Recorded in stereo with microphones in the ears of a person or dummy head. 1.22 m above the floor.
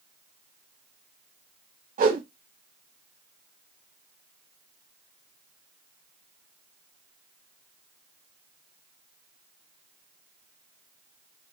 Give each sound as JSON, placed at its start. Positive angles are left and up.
{"t": 2.0, "sound": "a whoosh", "side_deg": -40, "distance_m": 1.1}